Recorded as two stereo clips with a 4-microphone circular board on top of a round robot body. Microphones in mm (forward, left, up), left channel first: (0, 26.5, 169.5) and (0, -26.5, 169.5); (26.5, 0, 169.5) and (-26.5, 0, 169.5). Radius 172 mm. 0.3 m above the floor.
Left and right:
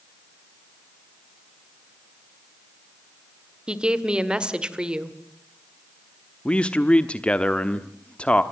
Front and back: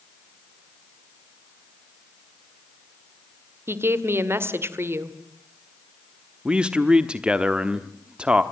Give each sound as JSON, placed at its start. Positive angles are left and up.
{"t": 3.7, "sound": "a woman speaking", "azimuth_deg": -160, "distance_m": 2.0}
{"t": 6.5, "sound": "a man speaking", "azimuth_deg": 130, "distance_m": 1.3}